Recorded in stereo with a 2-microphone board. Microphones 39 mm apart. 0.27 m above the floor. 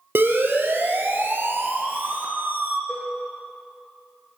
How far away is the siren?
About 5 m.